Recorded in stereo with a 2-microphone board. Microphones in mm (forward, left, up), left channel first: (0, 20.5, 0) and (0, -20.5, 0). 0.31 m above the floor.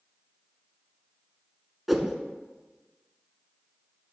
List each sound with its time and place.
1.9 s a whoosh: centre (ahead or behind), 0.6 m